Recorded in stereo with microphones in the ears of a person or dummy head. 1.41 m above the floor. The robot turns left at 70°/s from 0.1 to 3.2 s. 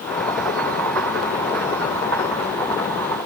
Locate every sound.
Only background noise.